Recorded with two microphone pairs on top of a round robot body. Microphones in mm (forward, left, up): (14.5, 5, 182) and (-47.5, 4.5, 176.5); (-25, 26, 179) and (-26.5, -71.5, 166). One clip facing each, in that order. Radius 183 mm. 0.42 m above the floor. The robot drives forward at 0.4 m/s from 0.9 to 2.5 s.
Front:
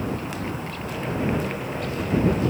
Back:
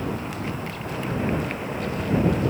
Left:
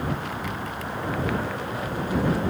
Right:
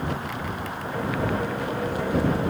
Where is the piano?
No piano in this recording.